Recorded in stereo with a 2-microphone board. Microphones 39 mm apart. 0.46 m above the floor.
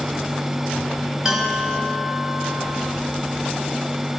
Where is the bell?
15° right (ahead or behind), 2.5 m.